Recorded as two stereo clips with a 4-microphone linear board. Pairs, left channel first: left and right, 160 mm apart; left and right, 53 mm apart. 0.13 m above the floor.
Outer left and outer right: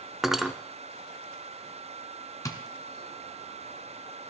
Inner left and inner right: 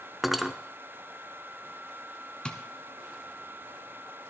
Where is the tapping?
20° left (ahead or behind), 1.2 m.